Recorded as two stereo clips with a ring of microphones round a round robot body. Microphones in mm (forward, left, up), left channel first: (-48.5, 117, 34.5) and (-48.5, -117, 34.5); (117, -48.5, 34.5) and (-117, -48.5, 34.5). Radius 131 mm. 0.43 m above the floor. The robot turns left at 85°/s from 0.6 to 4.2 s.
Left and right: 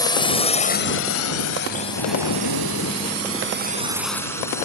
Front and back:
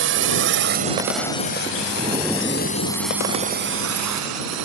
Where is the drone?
160° left; by 4.7 s 170° left.